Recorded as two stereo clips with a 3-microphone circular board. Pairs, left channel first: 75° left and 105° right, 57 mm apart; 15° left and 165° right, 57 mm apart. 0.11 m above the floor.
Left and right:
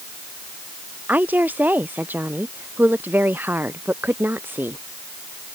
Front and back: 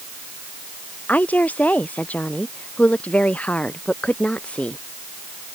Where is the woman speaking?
45° right; by 4.8 s 50° right.